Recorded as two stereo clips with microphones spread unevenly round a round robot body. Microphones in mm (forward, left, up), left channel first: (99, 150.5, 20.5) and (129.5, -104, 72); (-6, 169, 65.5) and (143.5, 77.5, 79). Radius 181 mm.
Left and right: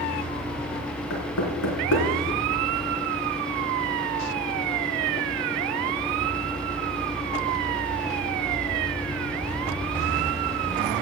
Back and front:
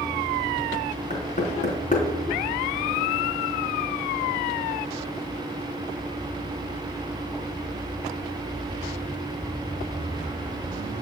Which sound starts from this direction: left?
Knocking, at 1.1 s.